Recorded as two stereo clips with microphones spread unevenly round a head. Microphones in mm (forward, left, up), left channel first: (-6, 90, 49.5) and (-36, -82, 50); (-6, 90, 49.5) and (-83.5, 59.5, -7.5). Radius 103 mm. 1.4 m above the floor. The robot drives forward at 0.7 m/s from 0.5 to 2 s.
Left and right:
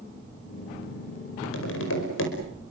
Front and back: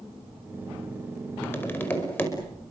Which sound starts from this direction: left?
Tapping, at 1.4 s.